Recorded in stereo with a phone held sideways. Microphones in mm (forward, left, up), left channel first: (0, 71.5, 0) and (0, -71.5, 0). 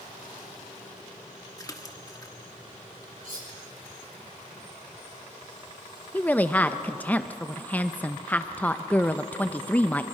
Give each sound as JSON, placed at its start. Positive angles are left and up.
{"t": 1.6, "sound": "a splash", "side_deg": 25, "distance_m": 1.1}
{"t": 3.2, "sound": "cutlery clinking", "side_deg": -70, "distance_m": 6.0}
{"t": 6.1, "sound": "a woman speaking", "side_deg": 10, "distance_m": 0.5}